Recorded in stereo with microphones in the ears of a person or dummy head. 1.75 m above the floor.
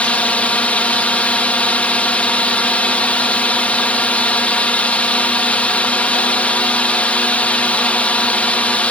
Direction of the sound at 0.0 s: 10° left (ahead or behind).